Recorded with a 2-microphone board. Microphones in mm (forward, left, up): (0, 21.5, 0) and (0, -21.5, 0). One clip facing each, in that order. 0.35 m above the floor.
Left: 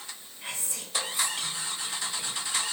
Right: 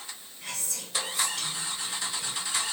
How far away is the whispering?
About 1.9 m.